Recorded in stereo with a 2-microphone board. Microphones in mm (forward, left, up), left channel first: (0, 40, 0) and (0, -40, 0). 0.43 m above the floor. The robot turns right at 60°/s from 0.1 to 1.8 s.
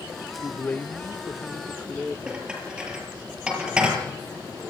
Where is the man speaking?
25° left (ahead or behind), 0.8 m; by 2.2 s 5° left (ahead or behind), 0.8 m.